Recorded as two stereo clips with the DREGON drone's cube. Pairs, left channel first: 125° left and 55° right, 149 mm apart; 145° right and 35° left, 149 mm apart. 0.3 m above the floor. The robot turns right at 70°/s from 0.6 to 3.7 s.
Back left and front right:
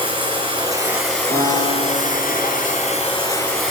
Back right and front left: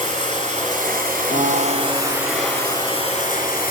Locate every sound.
0.0 s running water: 5° left, 2.5 m; by 3.7 s 140° right, 2.5 m
1.3 s a piano: 175° left, 3 m; by 3.6 s 25° right, 3 m